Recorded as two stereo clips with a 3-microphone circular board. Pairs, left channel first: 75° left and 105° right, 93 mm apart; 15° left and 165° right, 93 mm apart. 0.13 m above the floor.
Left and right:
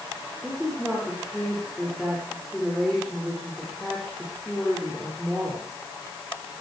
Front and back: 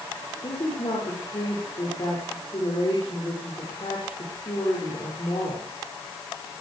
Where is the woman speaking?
15° right, 8.5 m.